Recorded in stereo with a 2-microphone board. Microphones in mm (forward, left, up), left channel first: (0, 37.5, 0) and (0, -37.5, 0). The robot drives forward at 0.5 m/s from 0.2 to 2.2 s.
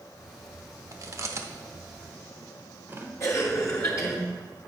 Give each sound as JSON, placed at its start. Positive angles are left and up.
{"t": 0.9, "sound": "chewing", "side_deg": -50, "distance_m": 0.7}
{"t": 3.2, "sound": "a cough", "side_deg": 40, "distance_m": 2.5}